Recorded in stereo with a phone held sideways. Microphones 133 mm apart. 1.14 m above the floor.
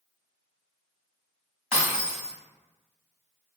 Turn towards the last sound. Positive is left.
turn(degrees=-20)  # may be behind; listen again after turning